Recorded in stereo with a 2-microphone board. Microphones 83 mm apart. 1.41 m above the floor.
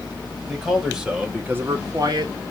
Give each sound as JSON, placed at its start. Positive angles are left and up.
{"t": 0.5, "sound": "a man speaking", "side_deg": 0, "distance_m": 2.0}